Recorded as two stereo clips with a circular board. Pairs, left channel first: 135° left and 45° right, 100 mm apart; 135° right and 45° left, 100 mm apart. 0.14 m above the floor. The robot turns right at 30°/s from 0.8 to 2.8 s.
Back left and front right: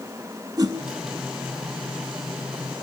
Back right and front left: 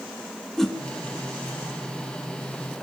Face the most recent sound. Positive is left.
turn(degrees=10)